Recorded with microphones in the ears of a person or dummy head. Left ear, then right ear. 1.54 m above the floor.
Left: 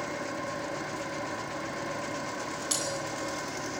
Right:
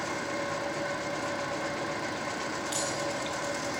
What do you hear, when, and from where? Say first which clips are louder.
0.0 s an engine running: right 2 dB; 5° right (ahead or behind), 4 m
2.7 s breaking glass: left 2 dB; 75° left (ahead or behind), 8 m